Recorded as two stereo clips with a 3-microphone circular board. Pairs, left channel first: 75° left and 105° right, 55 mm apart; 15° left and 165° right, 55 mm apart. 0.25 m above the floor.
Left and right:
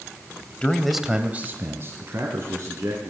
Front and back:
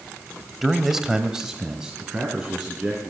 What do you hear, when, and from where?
0.6 s a man speaking: 110° left, 1.0 m; by 3.1 s 85° right, 3 m